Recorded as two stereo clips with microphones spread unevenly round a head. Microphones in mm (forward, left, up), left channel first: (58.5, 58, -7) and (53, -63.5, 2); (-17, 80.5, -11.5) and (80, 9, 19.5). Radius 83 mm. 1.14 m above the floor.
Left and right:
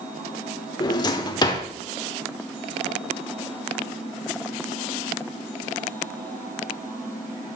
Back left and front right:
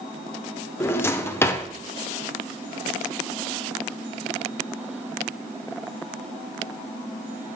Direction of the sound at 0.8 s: 65° left.